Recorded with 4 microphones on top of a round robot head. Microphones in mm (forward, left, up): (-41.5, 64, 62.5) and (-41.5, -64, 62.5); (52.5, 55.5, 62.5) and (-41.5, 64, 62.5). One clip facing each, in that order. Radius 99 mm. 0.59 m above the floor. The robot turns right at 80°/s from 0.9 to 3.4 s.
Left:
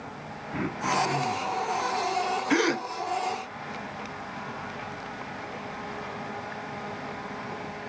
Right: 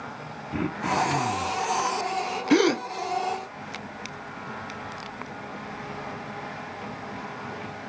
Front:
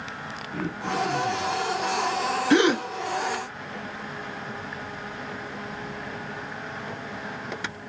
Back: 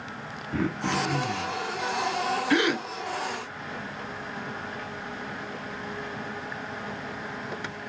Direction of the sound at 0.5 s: 155° right.